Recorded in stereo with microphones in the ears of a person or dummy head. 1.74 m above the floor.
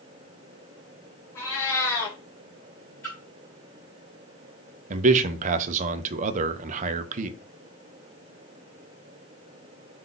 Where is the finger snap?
No finger snap in this recording.